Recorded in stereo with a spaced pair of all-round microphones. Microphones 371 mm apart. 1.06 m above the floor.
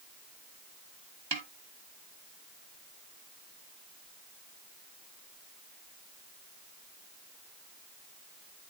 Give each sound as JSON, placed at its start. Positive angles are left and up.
{"t": 1.3, "sound": "a snare drum", "side_deg": -70, "distance_m": 1.3}